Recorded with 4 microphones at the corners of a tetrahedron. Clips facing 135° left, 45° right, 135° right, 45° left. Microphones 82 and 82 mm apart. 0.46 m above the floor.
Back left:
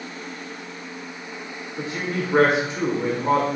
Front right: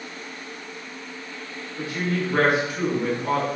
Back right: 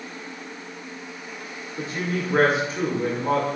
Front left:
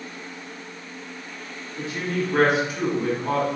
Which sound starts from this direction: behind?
A woman speaking, at 1.8 s.